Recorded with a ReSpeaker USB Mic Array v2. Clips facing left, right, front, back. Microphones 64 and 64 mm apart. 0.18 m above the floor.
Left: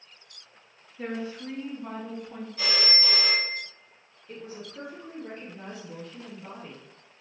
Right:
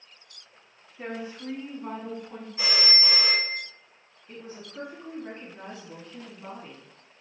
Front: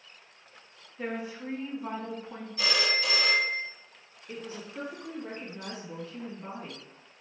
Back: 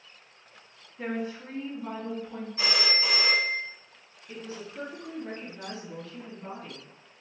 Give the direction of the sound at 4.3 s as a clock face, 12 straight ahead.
2 o'clock.